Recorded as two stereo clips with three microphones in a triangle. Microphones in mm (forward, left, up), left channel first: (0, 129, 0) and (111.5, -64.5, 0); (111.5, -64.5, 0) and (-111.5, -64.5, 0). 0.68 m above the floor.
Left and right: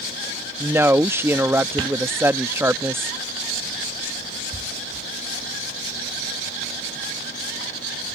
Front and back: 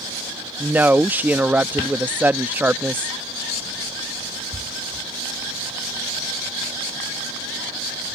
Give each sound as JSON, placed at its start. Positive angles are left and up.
{"t": 0.6, "sound": "a woman speaking", "azimuth_deg": -115}